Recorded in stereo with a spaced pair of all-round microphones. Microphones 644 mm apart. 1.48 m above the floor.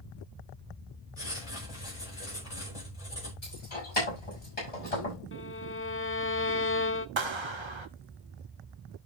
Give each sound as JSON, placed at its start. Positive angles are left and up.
{"t": 1.2, "sound": "writing", "side_deg": 65, "distance_m": 4.5}
{"t": 3.4, "sound": "keys jangling", "side_deg": 60, "distance_m": 6.5}
{"t": 5.3, "sound": "a violin", "side_deg": 20, "distance_m": 0.6}
{"t": 7.2, "sound": "a clap", "side_deg": -45, "distance_m": 0.9}